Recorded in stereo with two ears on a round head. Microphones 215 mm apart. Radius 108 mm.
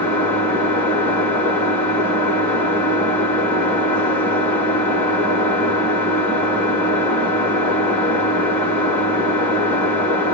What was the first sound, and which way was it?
An engine running, 10° left (ahead or behind).